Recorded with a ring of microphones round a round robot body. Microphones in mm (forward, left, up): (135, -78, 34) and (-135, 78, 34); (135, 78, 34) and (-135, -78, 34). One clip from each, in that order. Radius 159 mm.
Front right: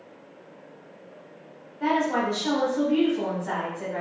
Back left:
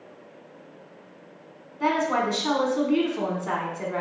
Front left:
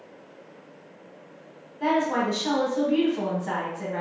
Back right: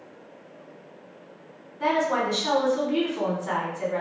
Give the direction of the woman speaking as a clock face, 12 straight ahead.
7 o'clock.